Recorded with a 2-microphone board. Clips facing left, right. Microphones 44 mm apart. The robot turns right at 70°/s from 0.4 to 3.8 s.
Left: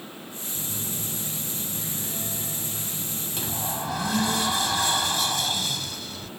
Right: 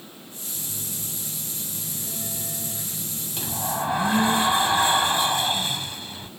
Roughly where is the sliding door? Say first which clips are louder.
Right 4 dB; behind.